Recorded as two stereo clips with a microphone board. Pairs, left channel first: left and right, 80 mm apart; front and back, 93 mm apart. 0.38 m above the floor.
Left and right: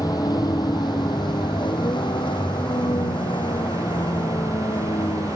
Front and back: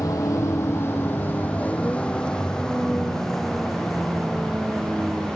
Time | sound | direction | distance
0.0 | a vehicle | 55° left | ?